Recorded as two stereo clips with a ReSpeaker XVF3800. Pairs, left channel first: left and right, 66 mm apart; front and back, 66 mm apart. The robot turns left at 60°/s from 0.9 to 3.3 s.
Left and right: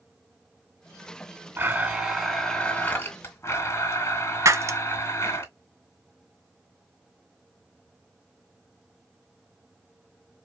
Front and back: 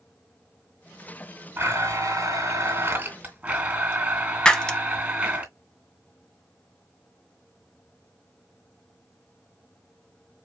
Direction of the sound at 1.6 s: 135° right.